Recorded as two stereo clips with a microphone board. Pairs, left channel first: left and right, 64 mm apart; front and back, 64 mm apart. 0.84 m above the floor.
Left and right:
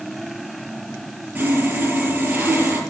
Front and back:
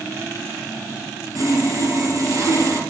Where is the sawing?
155° right, 5 m.